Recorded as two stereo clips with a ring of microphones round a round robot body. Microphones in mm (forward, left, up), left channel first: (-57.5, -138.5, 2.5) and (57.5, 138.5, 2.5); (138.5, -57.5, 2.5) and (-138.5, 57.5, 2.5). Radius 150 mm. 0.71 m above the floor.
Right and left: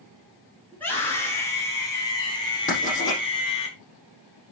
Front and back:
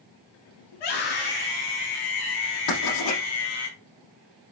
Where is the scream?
25° right, 7 m; by 3.7 s 40° right, 7.5 m.